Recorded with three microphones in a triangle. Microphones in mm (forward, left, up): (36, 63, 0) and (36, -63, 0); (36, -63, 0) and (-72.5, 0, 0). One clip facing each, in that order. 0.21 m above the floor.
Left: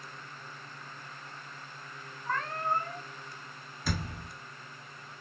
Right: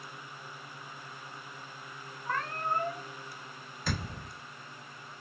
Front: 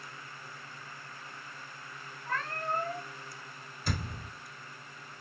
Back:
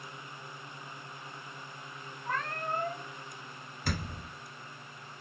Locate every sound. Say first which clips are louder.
2.3 s a cat meowing: left 1 dB, even; 170° right, 1.5 m
3.9 s a thud: left 1 dB, even; 175° left, 1.4 m